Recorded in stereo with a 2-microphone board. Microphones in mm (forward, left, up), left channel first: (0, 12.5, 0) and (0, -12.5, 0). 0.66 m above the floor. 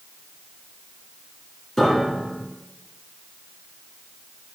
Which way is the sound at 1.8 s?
10° left (ahead or behind).